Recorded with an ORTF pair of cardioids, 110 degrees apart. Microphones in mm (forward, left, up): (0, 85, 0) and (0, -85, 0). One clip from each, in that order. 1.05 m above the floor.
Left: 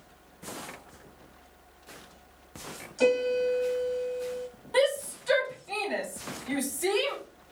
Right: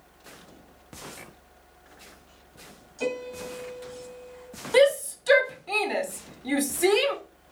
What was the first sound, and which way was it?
A piano, 40° left.